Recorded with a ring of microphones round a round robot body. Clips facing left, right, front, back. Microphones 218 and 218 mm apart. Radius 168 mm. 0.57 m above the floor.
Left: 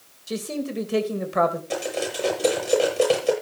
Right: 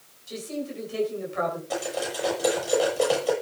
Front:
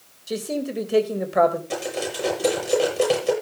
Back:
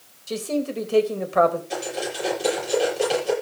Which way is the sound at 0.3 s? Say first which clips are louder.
Left 4 dB, back 1 dB; 75° left.